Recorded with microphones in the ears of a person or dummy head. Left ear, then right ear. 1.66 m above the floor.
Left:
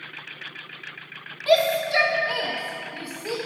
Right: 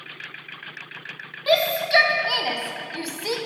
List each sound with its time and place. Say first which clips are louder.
1.5 s a shout: even; centre (ahead or behind), 0.9 m; by 3.4 s 65° right (ahead or behind), 1.1 m